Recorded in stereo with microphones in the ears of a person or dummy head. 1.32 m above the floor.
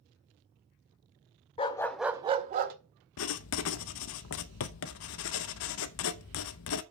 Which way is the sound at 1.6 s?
30° left (ahead or behind).